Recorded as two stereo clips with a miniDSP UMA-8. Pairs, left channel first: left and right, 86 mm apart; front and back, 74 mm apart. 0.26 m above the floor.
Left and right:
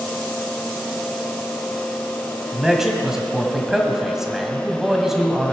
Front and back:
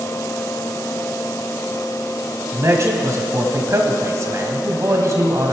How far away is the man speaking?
About 1.7 m.